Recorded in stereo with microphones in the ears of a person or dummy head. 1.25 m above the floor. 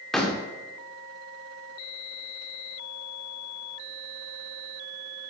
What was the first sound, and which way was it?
A door slam, 5° left (ahead or behind).